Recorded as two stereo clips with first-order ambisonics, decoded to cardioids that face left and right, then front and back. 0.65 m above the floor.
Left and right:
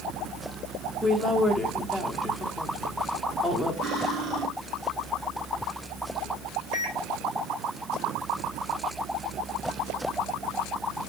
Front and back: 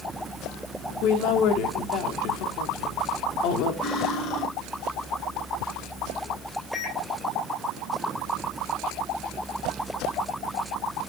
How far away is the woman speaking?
About 1.0 m.